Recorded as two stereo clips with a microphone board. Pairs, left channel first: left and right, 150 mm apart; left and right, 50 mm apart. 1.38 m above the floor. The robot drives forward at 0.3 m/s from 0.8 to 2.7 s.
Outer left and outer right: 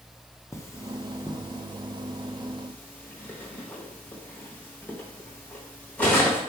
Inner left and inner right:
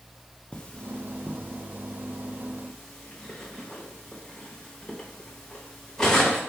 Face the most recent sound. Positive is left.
turn(degrees=10)  # may be behind; listen again after turning